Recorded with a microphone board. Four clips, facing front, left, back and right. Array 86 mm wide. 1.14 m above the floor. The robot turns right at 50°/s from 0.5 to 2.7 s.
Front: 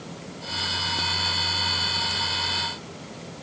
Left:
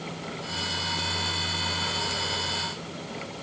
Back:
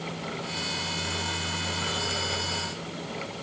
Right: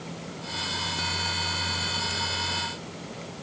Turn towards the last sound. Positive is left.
No sound to turn to.